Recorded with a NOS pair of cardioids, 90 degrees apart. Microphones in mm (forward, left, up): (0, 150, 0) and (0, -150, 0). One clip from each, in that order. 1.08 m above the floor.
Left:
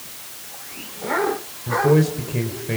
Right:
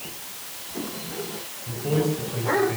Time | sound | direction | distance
1.7 | a man speaking | 60° left | 4 m